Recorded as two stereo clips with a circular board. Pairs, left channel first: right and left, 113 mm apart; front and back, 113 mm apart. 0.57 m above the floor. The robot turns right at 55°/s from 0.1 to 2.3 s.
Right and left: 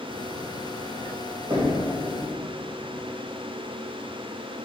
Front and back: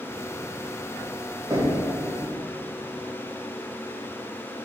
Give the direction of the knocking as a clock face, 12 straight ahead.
8 o'clock.